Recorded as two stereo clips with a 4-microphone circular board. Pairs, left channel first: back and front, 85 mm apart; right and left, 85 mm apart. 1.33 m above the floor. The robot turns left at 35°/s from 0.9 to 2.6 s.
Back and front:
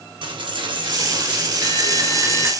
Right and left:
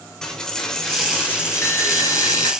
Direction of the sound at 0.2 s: 5° right.